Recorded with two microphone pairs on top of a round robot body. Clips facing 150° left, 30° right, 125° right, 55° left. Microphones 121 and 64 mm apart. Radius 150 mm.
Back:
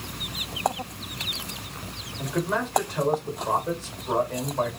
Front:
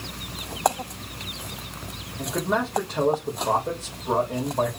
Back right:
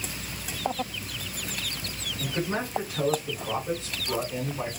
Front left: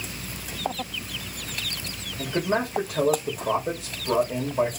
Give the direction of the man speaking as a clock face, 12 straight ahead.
11 o'clock.